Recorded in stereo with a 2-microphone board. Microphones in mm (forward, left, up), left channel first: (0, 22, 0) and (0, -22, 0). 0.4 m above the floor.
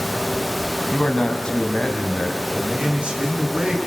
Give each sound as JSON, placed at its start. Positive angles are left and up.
{"t": 0.9, "sound": "a man speaking", "side_deg": 20, "distance_m": 2.5}
{"t": 2.5, "sound": "a man speaking", "side_deg": -25, "distance_m": 5.0}